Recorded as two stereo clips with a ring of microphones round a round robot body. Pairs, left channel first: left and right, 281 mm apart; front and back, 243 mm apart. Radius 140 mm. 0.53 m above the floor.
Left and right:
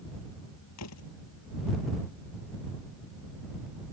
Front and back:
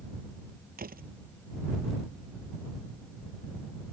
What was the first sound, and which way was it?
A door slam, 125° left.